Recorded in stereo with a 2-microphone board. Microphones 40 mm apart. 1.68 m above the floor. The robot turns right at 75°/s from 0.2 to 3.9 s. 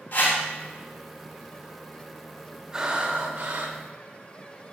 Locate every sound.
0.1 s a whoosh: 50° left (ahead or behind), 2 m; by 0.4 s 30° left (ahead or behind), 2 m
2.7 s breathing: 160° right, 0.9 m; by 3.8 s 80° right, 0.9 m